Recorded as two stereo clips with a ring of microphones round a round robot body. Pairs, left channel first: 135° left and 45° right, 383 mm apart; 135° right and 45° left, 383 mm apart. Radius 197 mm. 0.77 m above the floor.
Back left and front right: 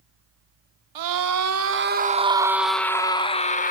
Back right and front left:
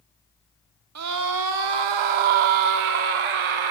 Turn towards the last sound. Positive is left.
turn(degrees=65)